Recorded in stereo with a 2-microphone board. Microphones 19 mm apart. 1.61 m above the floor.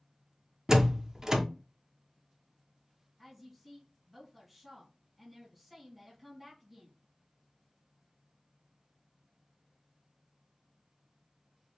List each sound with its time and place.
0.7 s a door slam: 25° right (ahead or behind), 0.6 m
3.2 s a woman speaking: 5° right (ahead or behind), 2 m